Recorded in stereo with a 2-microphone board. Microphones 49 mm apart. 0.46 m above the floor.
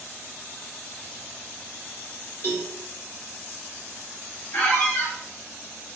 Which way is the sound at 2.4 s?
50° left (ahead or behind).